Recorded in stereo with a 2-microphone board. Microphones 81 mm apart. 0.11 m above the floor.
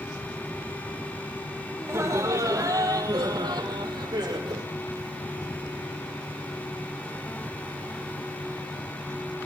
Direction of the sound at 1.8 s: 30° right (ahead or behind).